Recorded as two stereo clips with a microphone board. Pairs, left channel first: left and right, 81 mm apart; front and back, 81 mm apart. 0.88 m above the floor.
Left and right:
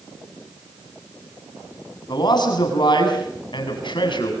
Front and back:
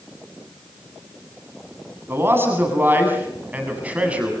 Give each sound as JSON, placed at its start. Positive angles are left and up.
{"t": 2.1, "sound": "a man speaking", "azimuth_deg": 120, "distance_m": 7.5}